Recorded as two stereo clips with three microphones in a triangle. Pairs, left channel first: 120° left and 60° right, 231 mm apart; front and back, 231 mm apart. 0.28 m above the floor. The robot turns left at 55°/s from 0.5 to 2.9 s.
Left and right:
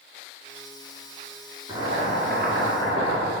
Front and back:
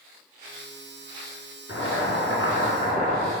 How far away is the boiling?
About 1.5 m.